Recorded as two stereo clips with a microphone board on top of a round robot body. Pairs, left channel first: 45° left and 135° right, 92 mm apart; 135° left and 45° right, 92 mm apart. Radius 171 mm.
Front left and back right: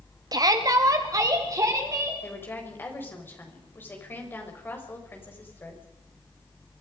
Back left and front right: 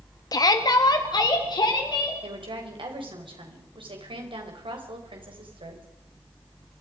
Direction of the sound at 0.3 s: Straight behind.